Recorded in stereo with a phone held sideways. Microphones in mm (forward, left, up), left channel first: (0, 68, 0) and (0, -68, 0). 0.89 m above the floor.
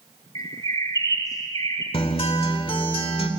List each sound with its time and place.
0.3 s a bird: 25° left (ahead or behind), 3 m
1.9 s a guitar: 40° left (ahead or behind), 2.5 m